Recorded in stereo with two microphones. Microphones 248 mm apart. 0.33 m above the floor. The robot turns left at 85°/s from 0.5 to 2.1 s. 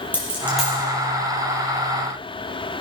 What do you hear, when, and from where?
0.1 s a dropped coin: 10° left (ahead or behind), 4.5 m; by 0.8 s 15° right (ahead or behind), 4.5 m